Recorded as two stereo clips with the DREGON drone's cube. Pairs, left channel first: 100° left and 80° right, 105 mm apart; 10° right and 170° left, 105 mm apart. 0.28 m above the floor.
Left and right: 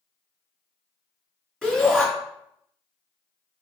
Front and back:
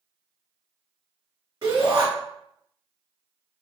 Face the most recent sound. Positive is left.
turn(degrees=-170)